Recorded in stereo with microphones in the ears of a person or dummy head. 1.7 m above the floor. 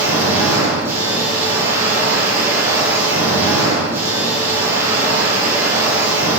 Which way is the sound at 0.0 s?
15° right (ahead or behind).